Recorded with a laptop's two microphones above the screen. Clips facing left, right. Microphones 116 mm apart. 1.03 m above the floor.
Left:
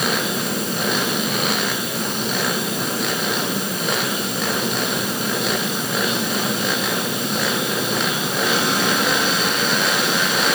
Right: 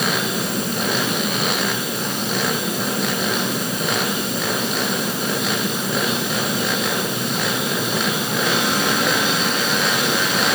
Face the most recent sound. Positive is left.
No sound to turn to.